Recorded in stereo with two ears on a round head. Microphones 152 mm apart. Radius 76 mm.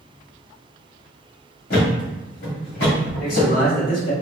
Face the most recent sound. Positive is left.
turn(degrees=60)  # may be behind; listen again after turning